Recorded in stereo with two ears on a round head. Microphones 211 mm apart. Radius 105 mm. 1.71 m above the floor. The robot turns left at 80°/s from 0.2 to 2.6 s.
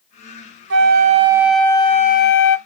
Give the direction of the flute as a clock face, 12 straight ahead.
4 o'clock.